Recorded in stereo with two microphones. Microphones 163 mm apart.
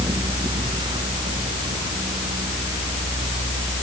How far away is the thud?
No thud in this recording.